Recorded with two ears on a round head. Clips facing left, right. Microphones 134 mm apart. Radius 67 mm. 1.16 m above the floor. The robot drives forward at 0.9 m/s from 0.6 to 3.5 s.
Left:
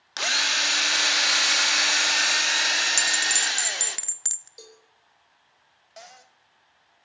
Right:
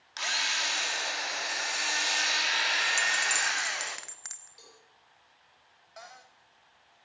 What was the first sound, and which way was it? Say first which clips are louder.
A drill: left 5 dB; 60° left (ahead or behind).